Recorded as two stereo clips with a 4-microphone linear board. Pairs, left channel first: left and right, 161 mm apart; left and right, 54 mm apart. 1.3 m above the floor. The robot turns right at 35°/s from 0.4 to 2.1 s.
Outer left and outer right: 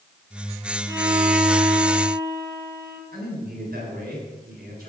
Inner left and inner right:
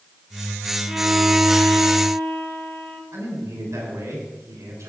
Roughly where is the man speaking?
Right.